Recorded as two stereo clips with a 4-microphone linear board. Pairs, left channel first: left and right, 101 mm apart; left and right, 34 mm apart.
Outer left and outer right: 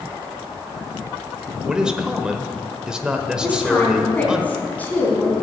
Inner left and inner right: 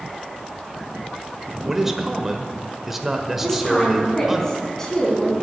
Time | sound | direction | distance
1.6 | a man speaking | 10° right (ahead or behind) | 1.4 m
3.4 | a woman speaking | 15° left (ahead or behind) | 3.5 m